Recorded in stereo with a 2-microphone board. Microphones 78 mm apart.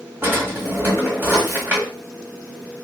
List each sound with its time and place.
0.2 s a drawer: 25° right (ahead or behind), 1.3 m